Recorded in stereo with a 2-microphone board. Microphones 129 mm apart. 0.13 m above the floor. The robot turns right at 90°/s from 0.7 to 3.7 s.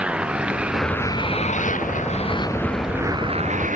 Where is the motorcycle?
10° right; by 3.8 s 100° right.